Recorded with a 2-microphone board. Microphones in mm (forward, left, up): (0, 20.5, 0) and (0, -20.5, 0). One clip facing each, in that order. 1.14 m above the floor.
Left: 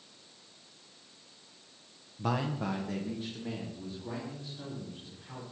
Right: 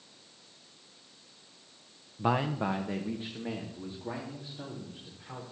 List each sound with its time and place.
2.2 s a man speaking: 25° right (ahead or behind), 0.7 m